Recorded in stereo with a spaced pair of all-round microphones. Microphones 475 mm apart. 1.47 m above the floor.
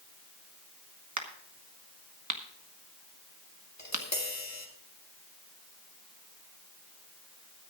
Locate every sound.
1.2 s a crack: 35° right (ahead or behind), 1.4 m
3.8 s tapping: 35° left (ahead or behind), 1.9 m